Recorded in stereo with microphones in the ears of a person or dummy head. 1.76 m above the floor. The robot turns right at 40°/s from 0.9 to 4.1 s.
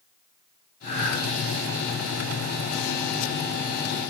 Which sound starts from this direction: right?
Breathing, at 0.8 s.